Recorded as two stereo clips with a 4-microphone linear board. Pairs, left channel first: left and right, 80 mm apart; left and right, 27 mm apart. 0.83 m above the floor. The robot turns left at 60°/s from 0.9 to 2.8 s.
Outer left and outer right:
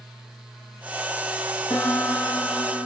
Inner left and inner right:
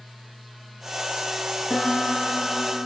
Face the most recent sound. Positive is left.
turn(degrees=-45)